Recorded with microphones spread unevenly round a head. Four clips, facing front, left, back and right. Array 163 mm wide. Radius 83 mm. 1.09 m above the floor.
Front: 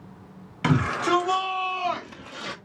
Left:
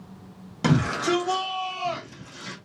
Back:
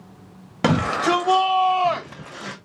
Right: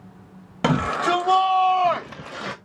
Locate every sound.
0.6 s a shout: 155° right, 1.7 m; by 2.6 s 95° right, 0.8 m